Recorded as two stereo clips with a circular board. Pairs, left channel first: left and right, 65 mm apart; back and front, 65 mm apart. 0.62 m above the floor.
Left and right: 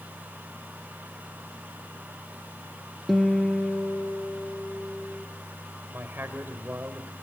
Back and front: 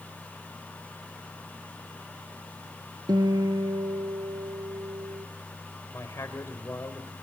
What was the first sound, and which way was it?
A guitar, straight ahead.